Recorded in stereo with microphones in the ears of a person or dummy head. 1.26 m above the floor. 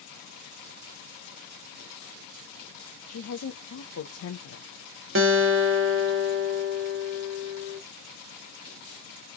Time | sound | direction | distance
3.1 | a woman speaking | 70° left (ahead or behind) | 0.7 m
5.2 | a guitar | 65° right (ahead or behind) | 0.9 m